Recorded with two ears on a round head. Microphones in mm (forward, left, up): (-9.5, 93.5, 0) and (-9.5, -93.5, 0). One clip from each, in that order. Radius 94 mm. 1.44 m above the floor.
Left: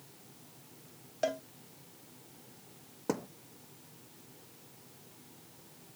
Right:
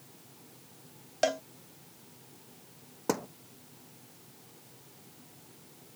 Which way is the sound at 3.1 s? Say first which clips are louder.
Right 4 dB; 35° right (ahead or behind).